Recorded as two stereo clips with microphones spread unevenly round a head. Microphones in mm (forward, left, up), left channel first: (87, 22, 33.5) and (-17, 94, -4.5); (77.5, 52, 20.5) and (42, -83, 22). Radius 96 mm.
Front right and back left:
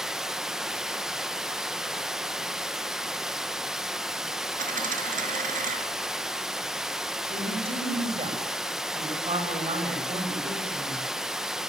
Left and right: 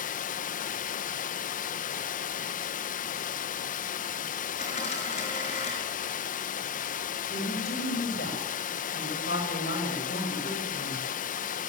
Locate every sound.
0.0 s running water: 55° left, 0.8 m
4.6 s a dropped coin: 135° left, 5.5 m
7.3 s a woman speaking: 105° left, 8 m